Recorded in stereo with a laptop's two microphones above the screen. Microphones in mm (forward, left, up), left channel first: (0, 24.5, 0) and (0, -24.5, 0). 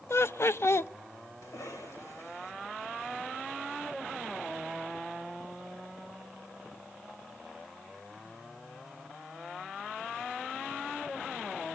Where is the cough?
75° left (ahead or behind), 4.5 m.